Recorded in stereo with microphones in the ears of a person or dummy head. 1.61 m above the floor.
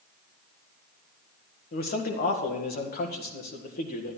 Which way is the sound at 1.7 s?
45° left (ahead or behind).